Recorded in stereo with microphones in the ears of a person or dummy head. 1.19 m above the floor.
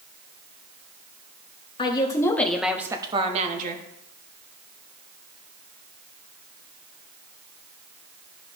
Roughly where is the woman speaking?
Left.